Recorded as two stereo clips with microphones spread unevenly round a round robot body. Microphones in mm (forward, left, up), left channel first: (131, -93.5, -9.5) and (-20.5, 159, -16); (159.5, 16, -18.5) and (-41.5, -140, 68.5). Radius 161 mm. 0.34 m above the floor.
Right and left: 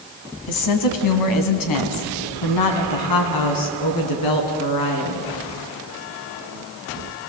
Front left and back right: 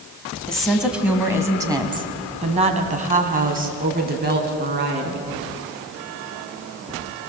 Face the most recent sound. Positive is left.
turn(degrees=-90)